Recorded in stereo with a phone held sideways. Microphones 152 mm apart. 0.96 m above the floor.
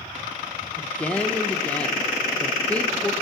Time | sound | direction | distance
0.7 | a woman speaking | 10° left (ahead or behind) | 0.9 m